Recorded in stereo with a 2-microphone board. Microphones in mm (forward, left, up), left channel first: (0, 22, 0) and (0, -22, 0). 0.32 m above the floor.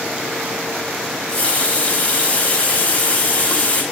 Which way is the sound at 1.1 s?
30° left (ahead or behind).